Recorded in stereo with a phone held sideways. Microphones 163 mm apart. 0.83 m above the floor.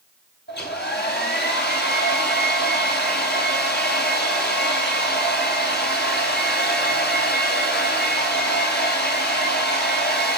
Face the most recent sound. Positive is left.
turn(degrees=85)